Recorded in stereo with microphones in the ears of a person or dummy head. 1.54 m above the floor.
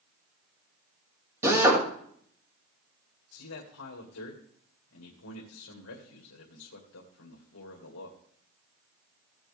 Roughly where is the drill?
Centre.